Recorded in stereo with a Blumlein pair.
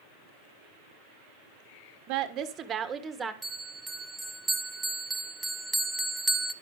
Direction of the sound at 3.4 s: 10° right.